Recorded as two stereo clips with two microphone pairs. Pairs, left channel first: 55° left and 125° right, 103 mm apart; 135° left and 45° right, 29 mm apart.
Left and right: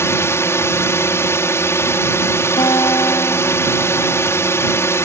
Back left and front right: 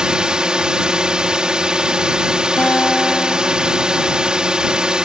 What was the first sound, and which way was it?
A drone, 5° left.